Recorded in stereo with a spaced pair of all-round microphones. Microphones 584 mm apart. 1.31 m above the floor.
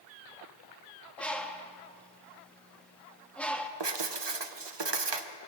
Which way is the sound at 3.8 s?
45° right (ahead or behind).